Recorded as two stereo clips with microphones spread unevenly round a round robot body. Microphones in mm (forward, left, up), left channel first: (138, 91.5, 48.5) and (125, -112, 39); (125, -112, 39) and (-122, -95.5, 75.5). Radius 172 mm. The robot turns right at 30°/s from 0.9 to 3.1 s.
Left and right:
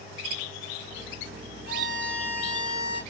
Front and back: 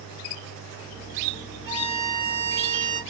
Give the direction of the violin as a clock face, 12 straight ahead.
7 o'clock.